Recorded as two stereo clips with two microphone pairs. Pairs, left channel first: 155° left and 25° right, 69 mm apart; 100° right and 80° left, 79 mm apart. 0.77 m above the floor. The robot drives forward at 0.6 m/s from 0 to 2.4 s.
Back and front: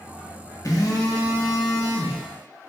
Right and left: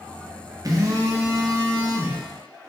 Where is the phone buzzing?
120° left, 0.7 m; by 2.2 s 155° left, 1.4 m.